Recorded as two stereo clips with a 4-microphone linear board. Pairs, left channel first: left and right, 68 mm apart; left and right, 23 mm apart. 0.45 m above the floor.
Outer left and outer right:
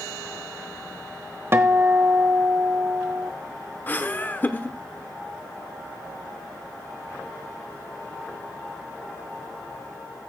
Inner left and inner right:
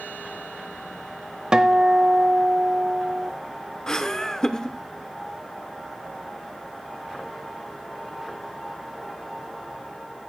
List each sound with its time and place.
1.5 s a guitar: 40° right (ahead or behind), 0.9 m
3.9 s laughter: 25° left (ahead or behind), 0.9 m